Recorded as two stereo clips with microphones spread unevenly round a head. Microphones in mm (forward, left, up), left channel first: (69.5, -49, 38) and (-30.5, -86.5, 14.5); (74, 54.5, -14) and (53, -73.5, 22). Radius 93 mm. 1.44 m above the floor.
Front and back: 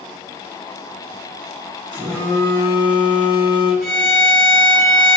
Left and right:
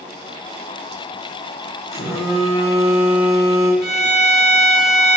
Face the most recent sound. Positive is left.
turn(degrees=-45)